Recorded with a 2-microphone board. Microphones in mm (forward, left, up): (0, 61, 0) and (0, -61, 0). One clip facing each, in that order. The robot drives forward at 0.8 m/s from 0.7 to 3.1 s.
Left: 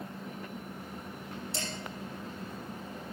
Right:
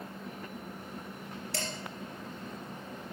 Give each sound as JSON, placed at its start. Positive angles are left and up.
{"t": 1.5, "sound": "dishes clattering", "side_deg": -70, "distance_m": 3.0}